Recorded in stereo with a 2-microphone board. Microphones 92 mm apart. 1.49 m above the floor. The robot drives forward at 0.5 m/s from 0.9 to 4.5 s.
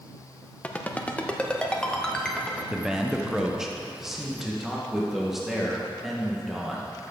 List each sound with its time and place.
0.6 s a ringtone: 15° left (ahead or behind), 0.6 m; by 2.6 s 5° left (ahead or behind), 1.3 m
2.7 s a man speaking: 10° right (ahead or behind), 0.6 m; by 6.9 s 5° right (ahead or behind), 1.5 m